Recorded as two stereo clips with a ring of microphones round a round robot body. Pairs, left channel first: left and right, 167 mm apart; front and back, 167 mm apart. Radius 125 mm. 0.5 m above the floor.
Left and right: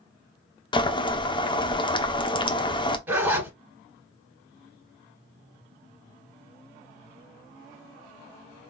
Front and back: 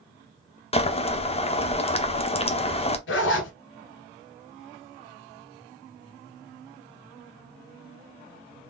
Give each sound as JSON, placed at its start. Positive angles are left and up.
{"t": 0.7, "sound": "boiling", "azimuth_deg": 40, "distance_m": 0.9}
{"t": 3.1, "sound": "a zipper", "azimuth_deg": -10, "distance_m": 1.5}